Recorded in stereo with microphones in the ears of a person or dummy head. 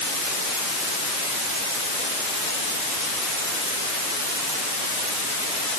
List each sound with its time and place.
Only background noise.